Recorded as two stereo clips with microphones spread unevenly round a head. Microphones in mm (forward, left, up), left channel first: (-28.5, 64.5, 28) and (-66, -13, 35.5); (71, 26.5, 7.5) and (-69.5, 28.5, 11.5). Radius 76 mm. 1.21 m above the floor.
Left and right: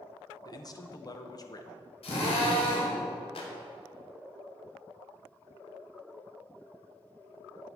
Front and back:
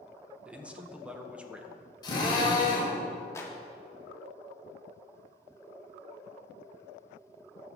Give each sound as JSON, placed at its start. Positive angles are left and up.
{"t": 0.5, "sound": "a man speaking", "azimuth_deg": 95, "distance_m": 1.3}
{"t": 2.0, "sound": "a drill", "azimuth_deg": 60, "distance_m": 4.0}
{"t": 3.4, "sound": "a clap", "azimuth_deg": 70, "distance_m": 2.0}